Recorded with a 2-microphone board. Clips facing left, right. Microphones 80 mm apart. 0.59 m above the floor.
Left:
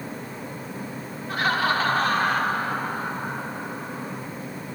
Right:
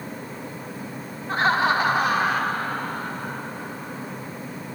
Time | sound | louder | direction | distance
1.3 | laughter | right 3 dB | 30° right (ahead or behind) | 1.0 m